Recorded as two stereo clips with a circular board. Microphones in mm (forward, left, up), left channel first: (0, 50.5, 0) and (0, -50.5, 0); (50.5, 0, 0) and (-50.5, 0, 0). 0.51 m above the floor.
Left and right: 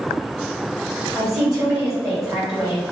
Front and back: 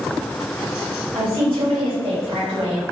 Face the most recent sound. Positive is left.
turn(degrees=-170)